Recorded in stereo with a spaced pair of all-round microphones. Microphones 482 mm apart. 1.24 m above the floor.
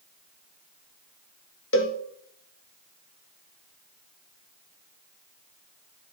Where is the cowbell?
25° left (ahead or behind), 0.7 m.